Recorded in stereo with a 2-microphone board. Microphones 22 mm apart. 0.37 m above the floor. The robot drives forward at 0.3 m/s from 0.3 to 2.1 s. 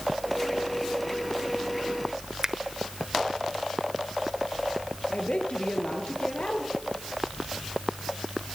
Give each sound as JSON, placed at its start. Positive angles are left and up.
{"t": 2.4, "sound": "a finger snap", "side_deg": -30, "distance_m": 1.2}
{"t": 5.1, "sound": "a woman speaking", "side_deg": 65, "distance_m": 6.0}